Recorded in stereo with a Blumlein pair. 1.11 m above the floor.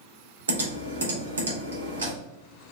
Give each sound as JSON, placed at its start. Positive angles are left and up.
{"t": 0.5, "sound": "typing on a keyboard", "azimuth_deg": -70, "distance_m": 1.3}